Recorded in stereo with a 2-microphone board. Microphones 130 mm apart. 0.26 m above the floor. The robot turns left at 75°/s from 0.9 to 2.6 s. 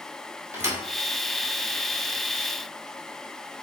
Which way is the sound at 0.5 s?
20° right (ahead or behind).